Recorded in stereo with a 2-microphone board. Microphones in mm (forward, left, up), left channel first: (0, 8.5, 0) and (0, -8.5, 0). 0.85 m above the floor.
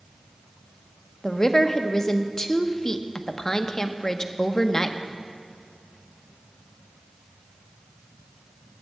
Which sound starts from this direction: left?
A woman speaking, at 1.2 s.